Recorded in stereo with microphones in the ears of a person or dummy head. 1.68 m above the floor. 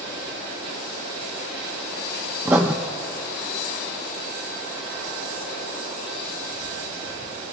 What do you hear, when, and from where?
2.5 s writing: 5° right (ahead or behind), 0.6 m